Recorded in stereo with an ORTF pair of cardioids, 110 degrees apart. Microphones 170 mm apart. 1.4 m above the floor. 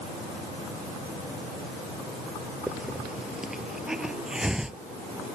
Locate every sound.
2.7 s a hiss: 5° right